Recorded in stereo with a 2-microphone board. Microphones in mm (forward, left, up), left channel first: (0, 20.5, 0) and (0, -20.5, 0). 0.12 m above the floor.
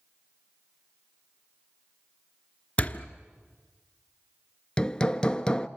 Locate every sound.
2.8 s a door slam: 30° left (ahead or behind), 1.1 m
4.8 s hammering: 20° left (ahead or behind), 0.6 m